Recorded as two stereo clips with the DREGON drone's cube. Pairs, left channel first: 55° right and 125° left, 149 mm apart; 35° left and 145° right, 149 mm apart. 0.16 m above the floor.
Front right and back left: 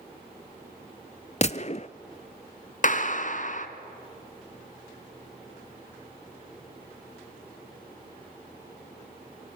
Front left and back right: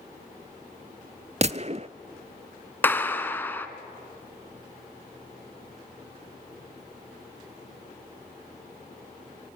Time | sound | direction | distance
1.4 | a gunshot | 100° right | 0.6 m
2.8 | a clap | 40° right | 1.6 m